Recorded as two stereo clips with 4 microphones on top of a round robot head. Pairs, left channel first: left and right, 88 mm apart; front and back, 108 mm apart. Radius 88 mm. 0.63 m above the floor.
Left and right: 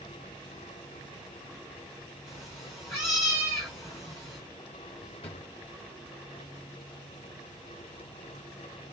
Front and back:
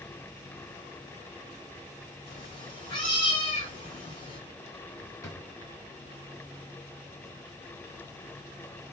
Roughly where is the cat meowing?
Ahead left.